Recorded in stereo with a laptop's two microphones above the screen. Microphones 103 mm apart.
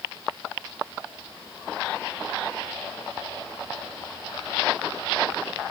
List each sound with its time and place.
Only background noise.